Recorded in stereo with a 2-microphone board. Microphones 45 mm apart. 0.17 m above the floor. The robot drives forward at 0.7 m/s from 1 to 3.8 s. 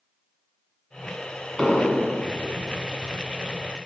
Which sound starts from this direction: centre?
An explosion, at 1.6 s.